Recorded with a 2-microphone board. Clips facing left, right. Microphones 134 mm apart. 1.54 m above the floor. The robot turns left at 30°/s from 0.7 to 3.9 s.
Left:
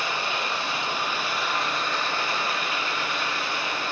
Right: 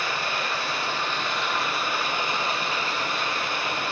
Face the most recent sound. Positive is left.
turn(degrees=-70)